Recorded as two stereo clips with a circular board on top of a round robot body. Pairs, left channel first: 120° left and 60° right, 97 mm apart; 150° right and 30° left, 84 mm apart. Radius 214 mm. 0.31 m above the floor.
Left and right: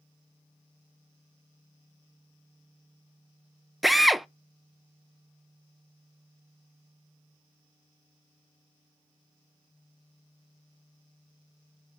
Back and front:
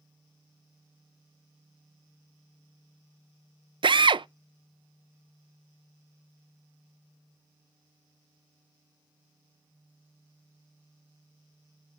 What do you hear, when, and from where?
3.8 s a drill: 30° left, 0.5 m